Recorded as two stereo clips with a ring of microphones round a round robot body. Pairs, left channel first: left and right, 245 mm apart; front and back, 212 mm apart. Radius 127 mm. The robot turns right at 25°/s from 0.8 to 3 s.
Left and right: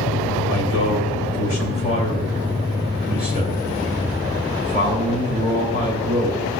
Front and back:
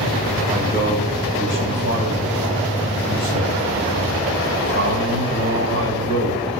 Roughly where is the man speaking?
Left.